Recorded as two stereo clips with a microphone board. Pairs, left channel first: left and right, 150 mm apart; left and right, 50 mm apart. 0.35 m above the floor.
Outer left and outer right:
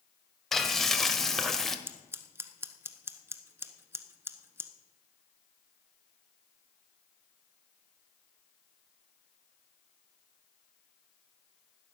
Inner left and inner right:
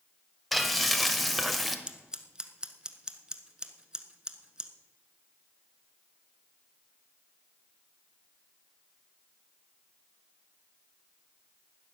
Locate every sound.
0.5 s frying: centre (ahead or behind), 1.2 m
1.9 s scissors: 15° right (ahead or behind), 1.1 m